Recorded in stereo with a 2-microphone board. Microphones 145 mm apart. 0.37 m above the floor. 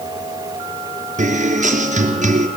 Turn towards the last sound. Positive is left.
turn(degrees=-55)  # may be behind; listen again after turning